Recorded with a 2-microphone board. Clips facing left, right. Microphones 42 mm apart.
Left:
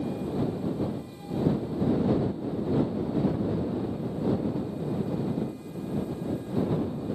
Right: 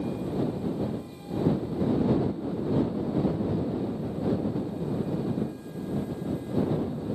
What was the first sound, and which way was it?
Only background noise.